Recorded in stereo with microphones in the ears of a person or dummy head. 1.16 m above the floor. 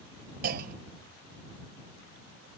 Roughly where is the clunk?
Right.